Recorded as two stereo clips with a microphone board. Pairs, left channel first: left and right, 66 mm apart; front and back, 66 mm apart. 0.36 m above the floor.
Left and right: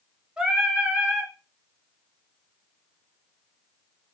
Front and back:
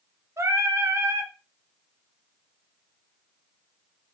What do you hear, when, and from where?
0.4 s singing: 165° right, 0.5 m